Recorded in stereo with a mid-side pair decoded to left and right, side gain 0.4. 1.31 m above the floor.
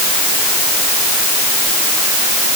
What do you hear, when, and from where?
Only background noise.